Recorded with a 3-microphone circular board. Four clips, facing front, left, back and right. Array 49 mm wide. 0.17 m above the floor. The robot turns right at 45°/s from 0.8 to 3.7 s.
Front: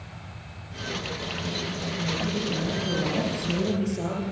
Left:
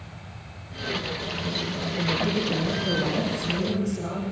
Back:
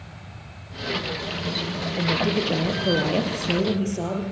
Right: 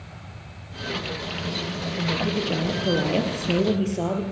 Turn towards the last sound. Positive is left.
turn(degrees=-115)